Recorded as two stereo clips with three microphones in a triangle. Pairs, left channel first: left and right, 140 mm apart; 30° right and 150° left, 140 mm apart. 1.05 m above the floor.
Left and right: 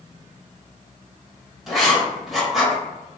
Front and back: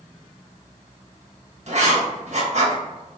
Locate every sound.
1.7 s writing: straight behind, 1.2 m